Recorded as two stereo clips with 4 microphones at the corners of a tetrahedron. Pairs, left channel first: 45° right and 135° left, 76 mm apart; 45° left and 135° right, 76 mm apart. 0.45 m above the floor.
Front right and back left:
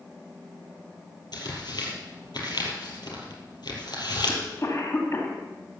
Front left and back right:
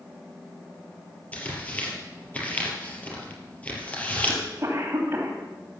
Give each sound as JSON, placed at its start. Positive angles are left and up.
{"t": 1.3, "sound": "tearing paper", "azimuth_deg": -25, "distance_m": 3.5}
{"t": 4.3, "sound": "a cough", "azimuth_deg": -85, "distance_m": 3.0}